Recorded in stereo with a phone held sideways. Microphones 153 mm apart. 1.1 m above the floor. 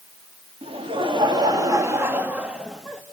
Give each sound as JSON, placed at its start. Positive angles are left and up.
{"t": 0.6, "sound": "laughter", "side_deg": -40, "distance_m": 2.0}